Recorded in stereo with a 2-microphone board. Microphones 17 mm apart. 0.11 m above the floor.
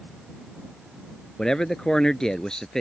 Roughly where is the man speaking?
Left.